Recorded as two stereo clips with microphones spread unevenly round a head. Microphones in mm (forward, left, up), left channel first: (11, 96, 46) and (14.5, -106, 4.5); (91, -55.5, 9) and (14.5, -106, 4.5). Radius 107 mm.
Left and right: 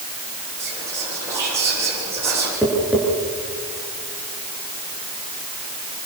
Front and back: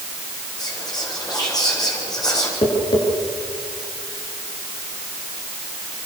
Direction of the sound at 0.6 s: 10° right.